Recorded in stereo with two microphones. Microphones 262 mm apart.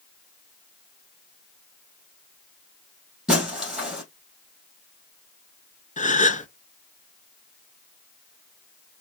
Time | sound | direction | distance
3.3 | breaking glass | 5° right (ahead or behind) | 3 m
6.0 | a gasp | 30° left (ahead or behind) | 0.6 m